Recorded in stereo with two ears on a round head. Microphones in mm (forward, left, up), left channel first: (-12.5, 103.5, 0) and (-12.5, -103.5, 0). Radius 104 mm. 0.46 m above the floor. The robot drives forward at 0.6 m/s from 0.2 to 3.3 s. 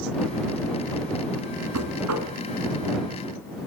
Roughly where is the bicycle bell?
No bicycle bell in this recording.